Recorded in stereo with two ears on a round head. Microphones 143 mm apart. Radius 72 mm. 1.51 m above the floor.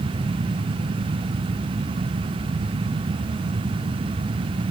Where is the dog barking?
I don't hear a dog barking.